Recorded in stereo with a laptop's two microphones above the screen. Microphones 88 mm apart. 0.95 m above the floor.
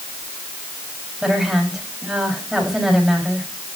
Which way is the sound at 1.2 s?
5° right (ahead or behind).